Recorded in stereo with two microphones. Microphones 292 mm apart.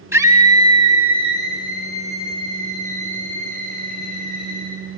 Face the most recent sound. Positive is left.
turn(degrees=-30)  # may be behind; listen again after turning